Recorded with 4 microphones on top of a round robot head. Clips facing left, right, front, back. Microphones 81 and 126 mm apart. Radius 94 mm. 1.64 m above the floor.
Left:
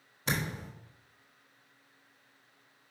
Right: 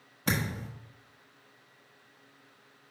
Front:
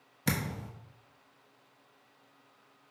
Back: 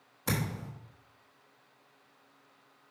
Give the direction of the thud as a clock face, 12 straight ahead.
1 o'clock.